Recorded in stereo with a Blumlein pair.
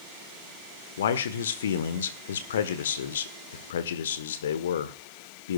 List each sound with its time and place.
1.0 s a man speaking: 65° left, 1.2 m